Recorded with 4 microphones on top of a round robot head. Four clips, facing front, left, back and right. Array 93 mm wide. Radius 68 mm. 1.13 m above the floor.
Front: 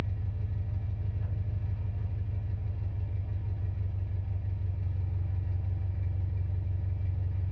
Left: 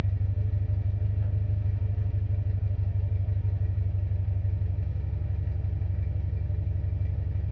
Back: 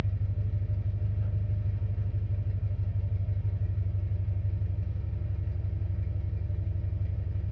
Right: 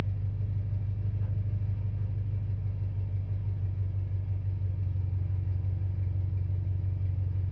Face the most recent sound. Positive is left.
turn(degrees=105)